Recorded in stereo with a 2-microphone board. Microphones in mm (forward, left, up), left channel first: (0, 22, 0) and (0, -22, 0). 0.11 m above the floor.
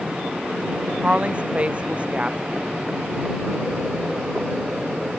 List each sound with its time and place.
1.0 s a woman speaking: 30° right (ahead or behind)